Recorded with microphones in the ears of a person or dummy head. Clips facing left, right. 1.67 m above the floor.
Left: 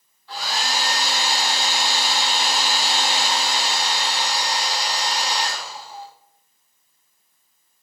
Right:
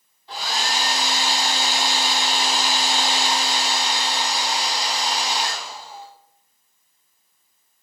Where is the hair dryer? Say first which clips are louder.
Even; 20° right (ahead or behind), 0.5 m.